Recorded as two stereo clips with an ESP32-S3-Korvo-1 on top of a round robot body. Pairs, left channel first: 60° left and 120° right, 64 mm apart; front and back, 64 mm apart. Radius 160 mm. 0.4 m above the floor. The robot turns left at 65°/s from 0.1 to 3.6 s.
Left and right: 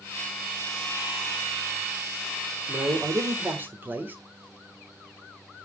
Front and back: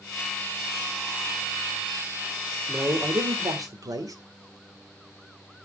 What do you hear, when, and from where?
2.7 s a man speaking: 120° right, 2 m; by 4.2 s straight behind, 2 m